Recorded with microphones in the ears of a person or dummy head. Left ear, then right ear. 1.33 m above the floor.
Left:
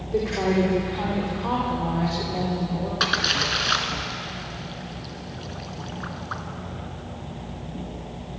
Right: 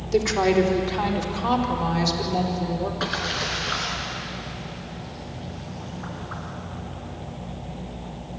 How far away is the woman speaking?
About 4.5 m.